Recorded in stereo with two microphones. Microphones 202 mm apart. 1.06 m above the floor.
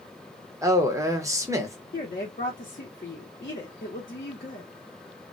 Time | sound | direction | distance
0.6 | a man speaking | 15° right (ahead or behind) | 0.8 m
1.9 | a woman speaking | 50° left (ahead or behind) | 0.8 m